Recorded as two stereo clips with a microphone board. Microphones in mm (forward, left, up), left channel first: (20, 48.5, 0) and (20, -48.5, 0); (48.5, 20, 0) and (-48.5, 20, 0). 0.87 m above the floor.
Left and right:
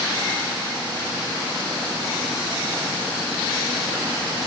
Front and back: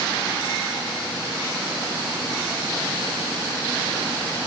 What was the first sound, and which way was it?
Only background noise.